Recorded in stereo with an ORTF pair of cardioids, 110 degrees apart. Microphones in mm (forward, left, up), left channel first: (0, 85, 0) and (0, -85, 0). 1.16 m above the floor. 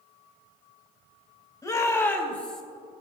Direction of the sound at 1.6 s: 20° left.